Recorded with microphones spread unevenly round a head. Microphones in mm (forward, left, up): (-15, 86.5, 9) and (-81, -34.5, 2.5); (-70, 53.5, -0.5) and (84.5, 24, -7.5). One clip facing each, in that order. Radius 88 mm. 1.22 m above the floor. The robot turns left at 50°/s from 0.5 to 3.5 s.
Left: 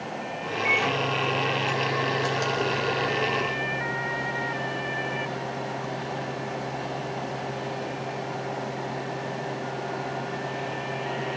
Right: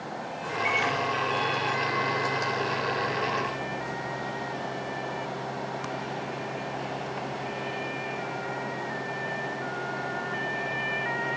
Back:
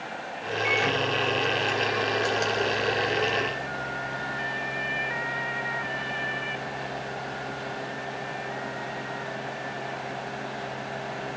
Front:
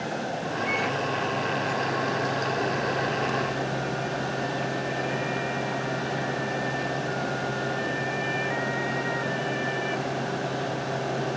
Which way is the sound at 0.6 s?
160° left.